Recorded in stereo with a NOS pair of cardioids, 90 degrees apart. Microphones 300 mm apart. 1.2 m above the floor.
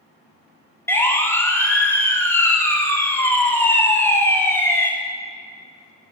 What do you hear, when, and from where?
0.9 s a siren: 10° left, 3 m